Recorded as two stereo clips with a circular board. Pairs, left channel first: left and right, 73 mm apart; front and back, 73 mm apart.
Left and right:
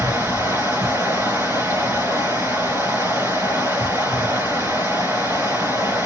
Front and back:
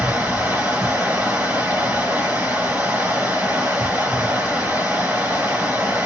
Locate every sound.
0.0 s running water: 125° right, 1.7 m